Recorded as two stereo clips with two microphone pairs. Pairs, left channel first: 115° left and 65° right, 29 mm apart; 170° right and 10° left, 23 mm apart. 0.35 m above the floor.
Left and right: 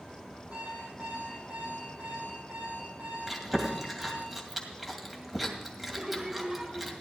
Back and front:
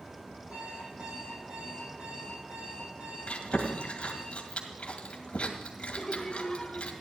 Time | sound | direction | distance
0.5 | an alarm clock | 20° right | 5.5 m
3.3 | chewing | 150° right | 2 m
5.9 | laughter | 125° right | 1.0 m